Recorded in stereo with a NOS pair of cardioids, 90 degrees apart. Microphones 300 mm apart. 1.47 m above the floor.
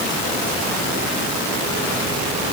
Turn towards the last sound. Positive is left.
No sound to turn to.